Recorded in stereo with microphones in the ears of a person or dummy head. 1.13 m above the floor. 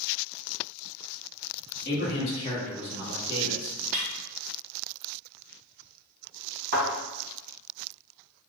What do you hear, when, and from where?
1.9 s a man speaking: 45° left (ahead or behind), 0.9 m; by 3.8 s 40° right (ahead or behind), 1.2 m
3.9 s a snare drum: 40° right (ahead or behind), 0.8 m
6.7 s a thud: 50° right (ahead or behind), 1.4 m